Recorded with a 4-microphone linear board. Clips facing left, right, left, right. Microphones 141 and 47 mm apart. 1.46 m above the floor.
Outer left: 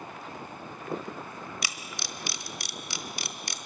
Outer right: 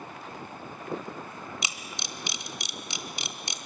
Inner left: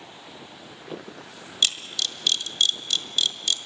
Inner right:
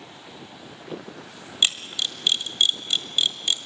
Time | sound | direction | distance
1.6 | a camera shutter | 20° right (ahead or behind) | 1.3 m